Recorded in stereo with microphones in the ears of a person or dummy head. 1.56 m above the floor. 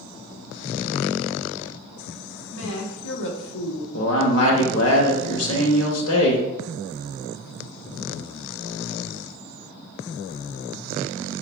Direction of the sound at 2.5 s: 70° left (ahead or behind).